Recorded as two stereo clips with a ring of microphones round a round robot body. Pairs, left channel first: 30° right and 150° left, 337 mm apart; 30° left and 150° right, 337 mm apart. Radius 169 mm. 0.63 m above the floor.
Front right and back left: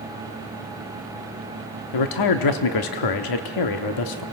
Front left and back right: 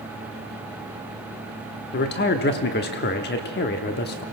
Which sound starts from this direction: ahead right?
A man speaking, at 1.9 s.